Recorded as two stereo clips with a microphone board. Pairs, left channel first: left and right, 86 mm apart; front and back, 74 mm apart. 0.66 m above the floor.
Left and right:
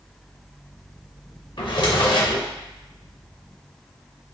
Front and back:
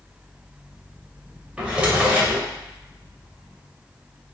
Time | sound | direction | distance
1.6 | a drawer | 105° left | 0.6 m